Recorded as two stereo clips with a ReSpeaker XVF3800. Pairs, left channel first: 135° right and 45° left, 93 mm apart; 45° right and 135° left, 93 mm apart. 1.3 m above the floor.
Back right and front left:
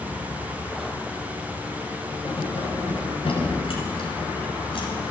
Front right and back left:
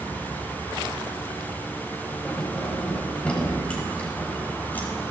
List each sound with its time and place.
2.2 s keys jangling: 125° right, 5.5 m; by 4.9 s 115° right, 4.5 m